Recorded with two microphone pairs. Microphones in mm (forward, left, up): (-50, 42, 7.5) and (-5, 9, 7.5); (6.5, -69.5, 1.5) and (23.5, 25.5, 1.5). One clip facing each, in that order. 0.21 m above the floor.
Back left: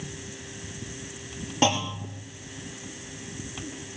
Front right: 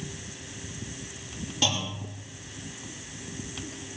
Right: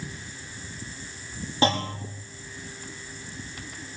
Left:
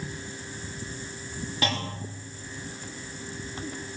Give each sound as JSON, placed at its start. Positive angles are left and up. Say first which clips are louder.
{"t": 1.6, "sound": "a clunk", "louder": "back left 6 dB, right 7 dB", "azimuth_deg": -165, "distance_m": 4.5}